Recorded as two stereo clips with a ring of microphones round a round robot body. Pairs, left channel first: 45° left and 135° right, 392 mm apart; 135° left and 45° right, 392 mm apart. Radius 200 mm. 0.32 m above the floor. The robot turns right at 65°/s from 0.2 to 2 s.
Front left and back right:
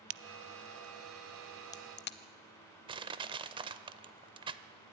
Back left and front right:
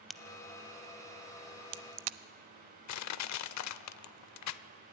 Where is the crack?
135° right, 0.6 m; by 2.2 s 20° right, 0.6 m.